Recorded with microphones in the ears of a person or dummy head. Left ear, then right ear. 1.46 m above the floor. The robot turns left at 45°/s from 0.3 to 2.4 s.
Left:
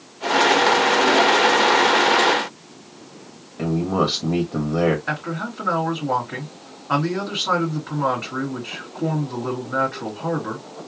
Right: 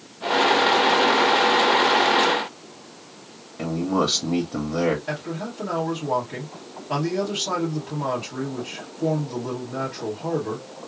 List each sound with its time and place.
3.6 s a man speaking: 10° left (ahead or behind), 1.1 m
5.1 s a man speaking: 60° left (ahead or behind), 2.5 m